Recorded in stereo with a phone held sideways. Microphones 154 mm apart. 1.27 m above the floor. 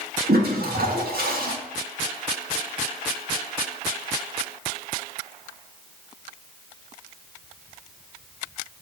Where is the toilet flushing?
85° right, 1.6 m.